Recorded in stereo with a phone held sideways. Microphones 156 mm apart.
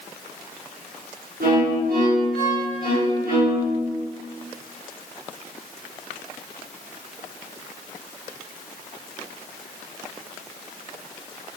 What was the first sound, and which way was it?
A violin, 85° right.